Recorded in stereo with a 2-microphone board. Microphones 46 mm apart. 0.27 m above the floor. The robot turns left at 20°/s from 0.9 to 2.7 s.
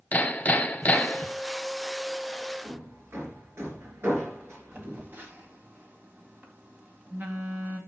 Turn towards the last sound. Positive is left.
turn(degrees=-50)  # may be behind; listen again after turning